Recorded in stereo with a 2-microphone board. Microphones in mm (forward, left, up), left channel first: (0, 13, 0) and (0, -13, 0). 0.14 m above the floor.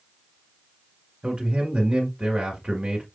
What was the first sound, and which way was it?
A man speaking, 25° right (ahead or behind).